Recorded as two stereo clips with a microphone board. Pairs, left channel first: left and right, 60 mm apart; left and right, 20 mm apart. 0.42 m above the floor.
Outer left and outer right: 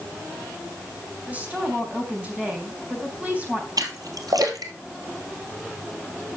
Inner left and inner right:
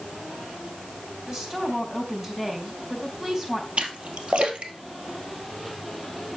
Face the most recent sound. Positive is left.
turn(degrees=-80)